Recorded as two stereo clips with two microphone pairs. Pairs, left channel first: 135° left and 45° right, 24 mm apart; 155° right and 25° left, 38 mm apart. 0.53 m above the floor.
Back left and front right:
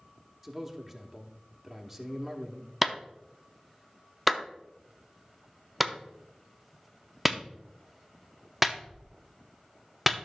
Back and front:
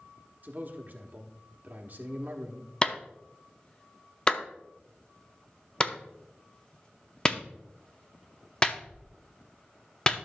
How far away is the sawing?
No sawing in this recording.